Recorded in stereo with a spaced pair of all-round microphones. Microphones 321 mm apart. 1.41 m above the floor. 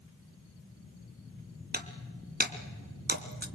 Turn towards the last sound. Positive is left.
turn(degrees=-30)  # may be behind; listen again after turning